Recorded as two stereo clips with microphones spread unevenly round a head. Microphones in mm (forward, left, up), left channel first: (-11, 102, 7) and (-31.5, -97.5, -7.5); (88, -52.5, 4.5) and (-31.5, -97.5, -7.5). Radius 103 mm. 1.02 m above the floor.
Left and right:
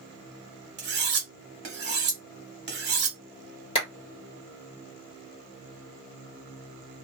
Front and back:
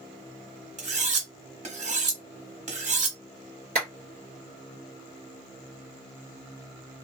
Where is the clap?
150° left, 1.2 m.